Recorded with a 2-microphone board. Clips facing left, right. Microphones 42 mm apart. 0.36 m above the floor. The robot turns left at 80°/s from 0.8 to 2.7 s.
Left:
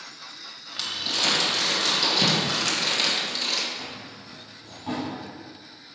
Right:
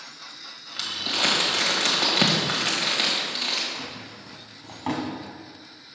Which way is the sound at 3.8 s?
70° right (ahead or behind).